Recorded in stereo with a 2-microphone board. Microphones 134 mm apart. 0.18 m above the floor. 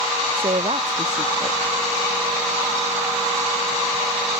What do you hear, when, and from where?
0.4 s a woman speaking: 50° right (ahead or behind)